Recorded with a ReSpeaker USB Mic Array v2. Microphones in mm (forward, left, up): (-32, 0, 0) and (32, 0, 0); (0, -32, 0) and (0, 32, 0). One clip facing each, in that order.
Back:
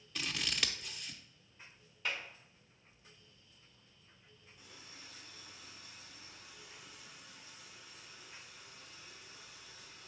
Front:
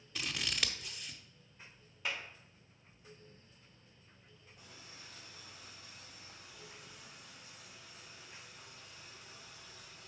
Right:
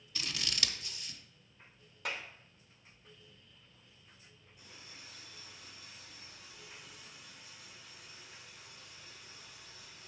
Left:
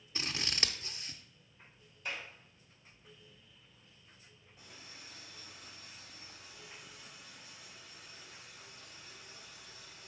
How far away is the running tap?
About 4 m.